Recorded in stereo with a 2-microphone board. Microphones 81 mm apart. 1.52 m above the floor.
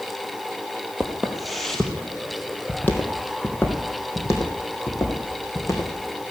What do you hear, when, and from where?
1.0 s footsteps: 10° right (ahead or behind), 2.5 m; by 6.2 s 45° left (ahead or behind), 5 m